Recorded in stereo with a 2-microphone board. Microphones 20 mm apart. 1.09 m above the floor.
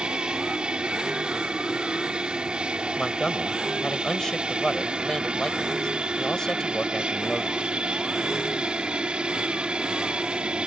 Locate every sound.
0.0 s an aircraft: 60° right (ahead or behind)
3.0 s a man speaking: 30° left (ahead or behind)